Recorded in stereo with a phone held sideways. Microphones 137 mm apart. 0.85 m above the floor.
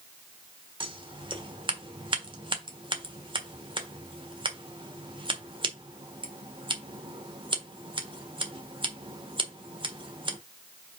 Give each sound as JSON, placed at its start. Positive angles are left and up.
{"t": 0.8, "sound": "scissors", "side_deg": -40, "distance_m": 1.5}